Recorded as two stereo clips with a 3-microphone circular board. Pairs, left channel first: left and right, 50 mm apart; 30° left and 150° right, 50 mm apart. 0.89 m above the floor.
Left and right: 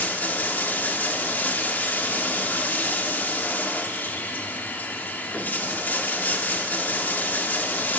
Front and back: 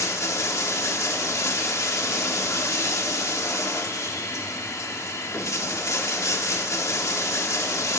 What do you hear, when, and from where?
0.0 s running water: 35° left, 1.1 m